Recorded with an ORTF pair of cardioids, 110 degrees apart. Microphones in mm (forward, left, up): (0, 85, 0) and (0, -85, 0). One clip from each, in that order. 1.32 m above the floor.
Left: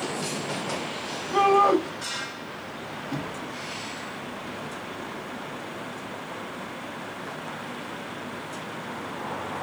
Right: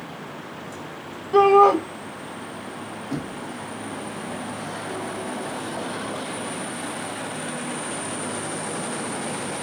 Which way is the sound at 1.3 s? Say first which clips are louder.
Right 5 dB; 25° right.